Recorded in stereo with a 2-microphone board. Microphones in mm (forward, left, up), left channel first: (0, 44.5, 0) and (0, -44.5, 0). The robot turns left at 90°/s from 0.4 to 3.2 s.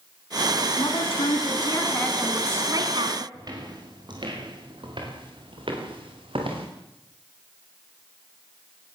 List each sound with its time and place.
0.8 s a woman speaking: 135° left, 3 m; by 3.2 s 85° right, 3 m
3.3 s footsteps: 45° right (ahead or behind), 5.5 m; by 6.7 s 75° right (ahead or behind), 6.5 m